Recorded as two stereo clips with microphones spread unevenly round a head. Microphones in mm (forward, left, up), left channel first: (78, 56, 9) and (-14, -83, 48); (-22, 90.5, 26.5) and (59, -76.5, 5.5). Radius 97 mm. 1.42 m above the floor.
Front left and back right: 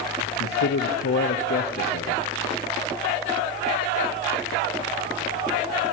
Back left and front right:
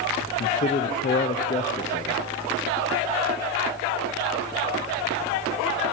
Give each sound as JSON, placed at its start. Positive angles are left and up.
{"t": 0.2, "sound": "a man speaking", "azimuth_deg": 60, "distance_m": 0.6}